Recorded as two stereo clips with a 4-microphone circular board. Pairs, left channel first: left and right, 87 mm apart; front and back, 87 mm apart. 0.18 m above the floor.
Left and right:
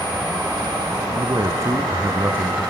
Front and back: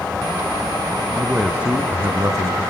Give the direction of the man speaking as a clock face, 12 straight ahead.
3 o'clock.